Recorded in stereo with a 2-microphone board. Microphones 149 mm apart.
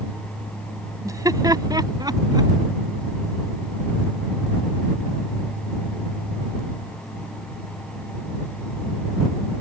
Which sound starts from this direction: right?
Laughter, at 1.1 s.